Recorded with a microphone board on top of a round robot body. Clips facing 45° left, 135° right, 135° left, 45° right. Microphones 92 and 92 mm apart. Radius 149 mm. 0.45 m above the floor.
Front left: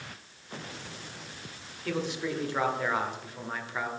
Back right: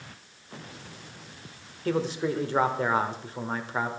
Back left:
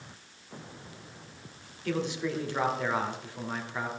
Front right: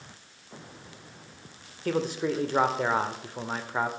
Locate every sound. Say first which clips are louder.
1.9 s a man speaking: back right 5 dB, front right 4 dB; 85° right, 1.6 m